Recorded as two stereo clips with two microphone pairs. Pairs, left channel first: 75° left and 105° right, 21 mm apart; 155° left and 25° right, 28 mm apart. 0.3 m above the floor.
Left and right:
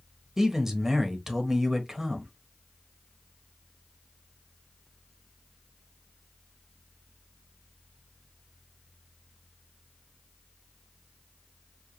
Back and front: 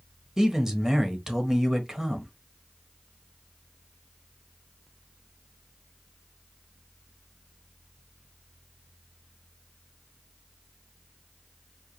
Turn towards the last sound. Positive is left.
turn(degrees=-75)